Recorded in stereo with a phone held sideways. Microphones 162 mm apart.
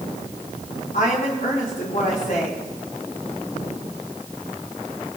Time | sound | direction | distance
0.9 | a woman speaking | 65° left (ahead or behind) | 4 m